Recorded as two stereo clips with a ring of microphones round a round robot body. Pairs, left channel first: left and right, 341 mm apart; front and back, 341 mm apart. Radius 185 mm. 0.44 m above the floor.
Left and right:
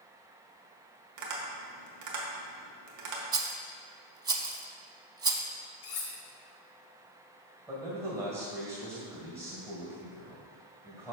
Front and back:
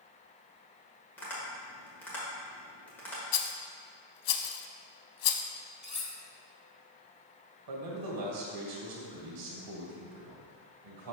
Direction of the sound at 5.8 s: 70° left.